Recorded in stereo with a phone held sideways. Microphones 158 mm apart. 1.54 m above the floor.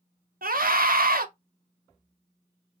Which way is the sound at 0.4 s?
70° right (ahead or behind).